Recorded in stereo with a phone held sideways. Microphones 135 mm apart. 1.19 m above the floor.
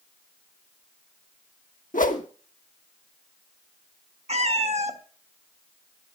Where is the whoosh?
90° left, 1.2 m.